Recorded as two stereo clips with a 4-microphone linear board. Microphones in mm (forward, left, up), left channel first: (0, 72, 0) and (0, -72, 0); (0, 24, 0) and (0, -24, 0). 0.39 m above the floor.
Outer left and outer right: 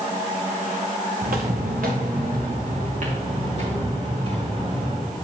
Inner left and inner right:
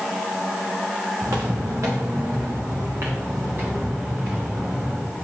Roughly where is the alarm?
No alarm in this recording.